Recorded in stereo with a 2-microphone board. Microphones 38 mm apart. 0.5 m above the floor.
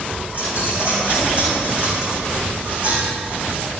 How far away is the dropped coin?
About 5.5 m.